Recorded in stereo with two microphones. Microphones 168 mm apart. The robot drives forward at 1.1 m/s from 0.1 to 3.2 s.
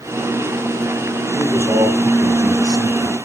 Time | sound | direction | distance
1.3 | a man speaking | 15° right (ahead or behind) | 2.5 m